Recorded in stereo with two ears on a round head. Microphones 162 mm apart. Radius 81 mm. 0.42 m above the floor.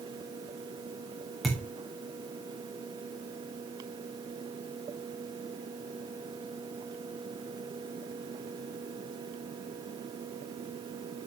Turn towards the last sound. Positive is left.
turn(degrees=0)  # may be behind; listen again after turning